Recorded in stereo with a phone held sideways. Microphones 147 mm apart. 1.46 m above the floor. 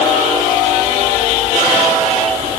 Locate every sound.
Only background noise.